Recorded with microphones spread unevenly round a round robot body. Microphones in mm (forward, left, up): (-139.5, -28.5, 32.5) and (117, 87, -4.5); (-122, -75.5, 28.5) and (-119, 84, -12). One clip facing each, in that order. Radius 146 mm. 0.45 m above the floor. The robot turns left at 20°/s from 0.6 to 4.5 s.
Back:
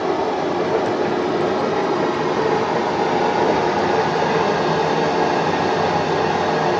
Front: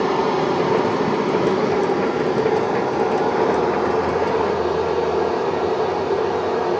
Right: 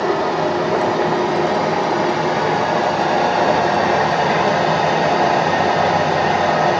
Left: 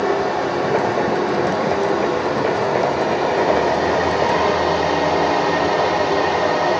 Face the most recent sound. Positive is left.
turn(degrees=-125)